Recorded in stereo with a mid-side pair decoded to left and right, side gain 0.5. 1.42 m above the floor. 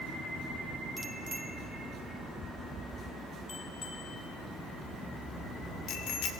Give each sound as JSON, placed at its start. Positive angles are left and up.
{"t": 1.0, "sound": "a bicycle bell", "azimuth_deg": -15, "distance_m": 2.0}